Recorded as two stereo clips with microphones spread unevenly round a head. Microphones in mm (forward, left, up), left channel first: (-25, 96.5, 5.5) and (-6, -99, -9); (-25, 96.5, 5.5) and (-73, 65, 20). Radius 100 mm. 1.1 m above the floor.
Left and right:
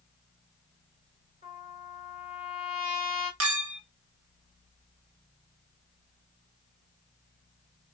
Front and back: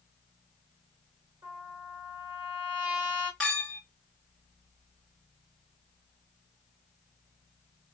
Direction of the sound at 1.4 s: 145° right.